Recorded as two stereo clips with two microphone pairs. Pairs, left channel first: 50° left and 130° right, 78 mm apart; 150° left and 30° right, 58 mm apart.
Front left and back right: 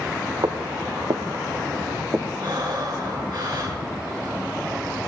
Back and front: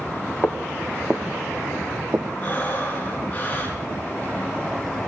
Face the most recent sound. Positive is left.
turn(degrees=-150)